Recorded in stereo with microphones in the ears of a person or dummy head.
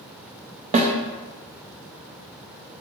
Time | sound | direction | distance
0.7 | a snare drum | 45° right (ahead or behind) | 0.5 m